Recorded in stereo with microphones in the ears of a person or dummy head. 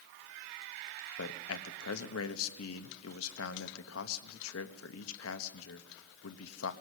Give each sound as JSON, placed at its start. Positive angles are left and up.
{"t": 1.2, "sound": "a man speaking", "side_deg": 75, "distance_m": 1.2}